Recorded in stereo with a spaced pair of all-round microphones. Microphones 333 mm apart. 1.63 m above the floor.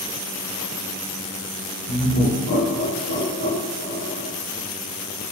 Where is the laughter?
35° left (ahead or behind), 0.6 m; by 4.3 s 55° left (ahead or behind), 1.2 m.